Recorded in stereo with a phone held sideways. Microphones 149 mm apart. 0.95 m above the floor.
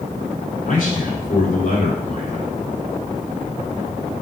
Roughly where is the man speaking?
Left.